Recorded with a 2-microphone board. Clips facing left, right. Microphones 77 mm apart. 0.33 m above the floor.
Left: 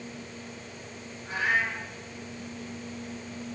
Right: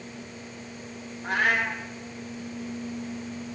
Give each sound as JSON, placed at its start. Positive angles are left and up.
{"t": 1.2, "sound": "a cat meowing", "side_deg": -70, "distance_m": 1.4}